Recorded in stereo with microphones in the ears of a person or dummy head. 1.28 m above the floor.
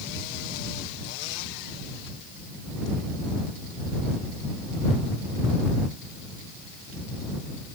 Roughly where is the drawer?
I don't hear a drawer.